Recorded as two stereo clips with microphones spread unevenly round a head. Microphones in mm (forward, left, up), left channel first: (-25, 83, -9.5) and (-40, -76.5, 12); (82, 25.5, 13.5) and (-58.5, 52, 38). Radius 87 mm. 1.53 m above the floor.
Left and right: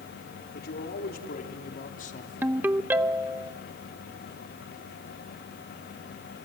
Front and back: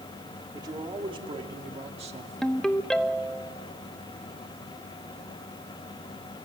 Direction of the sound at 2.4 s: 120° right.